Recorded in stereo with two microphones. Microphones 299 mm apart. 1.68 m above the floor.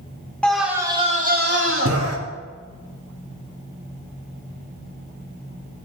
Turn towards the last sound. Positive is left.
turn(degrees=-55)  # may be behind; listen again after turning